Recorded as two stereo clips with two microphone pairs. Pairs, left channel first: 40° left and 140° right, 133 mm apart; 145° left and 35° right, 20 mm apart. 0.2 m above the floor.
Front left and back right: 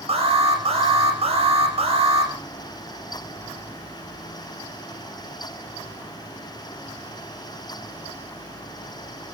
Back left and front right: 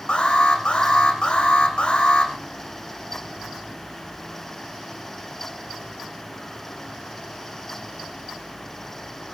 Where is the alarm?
Straight behind, 7.5 m.